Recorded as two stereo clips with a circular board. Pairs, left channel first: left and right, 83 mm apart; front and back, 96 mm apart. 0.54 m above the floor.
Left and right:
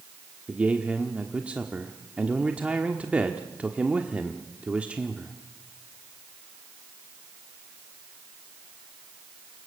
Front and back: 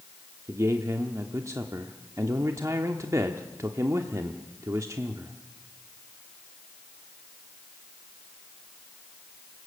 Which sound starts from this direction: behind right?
A man speaking, at 0.5 s.